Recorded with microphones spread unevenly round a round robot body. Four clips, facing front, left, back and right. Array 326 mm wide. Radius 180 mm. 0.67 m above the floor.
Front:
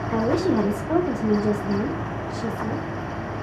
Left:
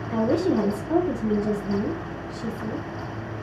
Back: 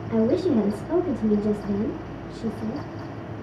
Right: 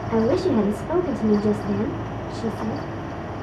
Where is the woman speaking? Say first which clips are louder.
Right 2 dB, back 1 dB; 65° right, 1.3 m.